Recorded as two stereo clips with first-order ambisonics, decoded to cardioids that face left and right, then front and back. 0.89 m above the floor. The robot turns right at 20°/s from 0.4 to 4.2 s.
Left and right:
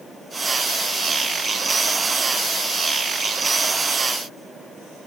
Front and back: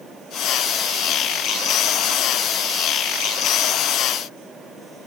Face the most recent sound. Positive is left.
No sound to turn to.